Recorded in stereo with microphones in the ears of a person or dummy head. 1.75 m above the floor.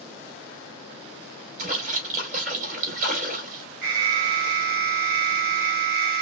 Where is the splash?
50° right (ahead or behind), 3 m.